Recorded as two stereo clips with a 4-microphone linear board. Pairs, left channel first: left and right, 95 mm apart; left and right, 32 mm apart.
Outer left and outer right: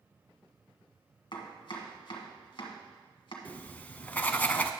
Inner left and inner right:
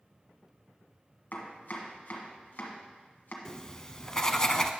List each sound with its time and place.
1.3 s chopping: 60° left (ahead or behind), 1.6 m
3.5 s writing: 20° left (ahead or behind), 0.5 m